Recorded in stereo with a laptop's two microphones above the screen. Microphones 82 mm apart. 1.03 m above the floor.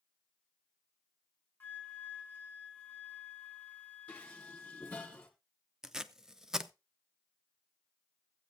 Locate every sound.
1.6 s a flute: 20° left (ahead or behind), 1.4 m
4.1 s dishes clattering: 15° left (ahead or behind), 1.5 m
5.8 s tape being pulled: 5° right (ahead or behind), 0.6 m